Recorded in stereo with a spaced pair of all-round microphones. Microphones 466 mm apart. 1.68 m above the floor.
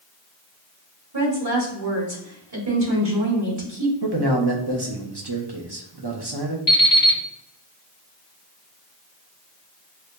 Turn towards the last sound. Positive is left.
turn(degrees=45)  # may be behind; listen again after turning